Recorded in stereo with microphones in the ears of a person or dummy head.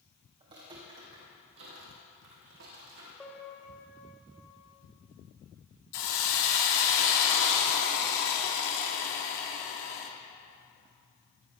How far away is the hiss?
About 1.7 m.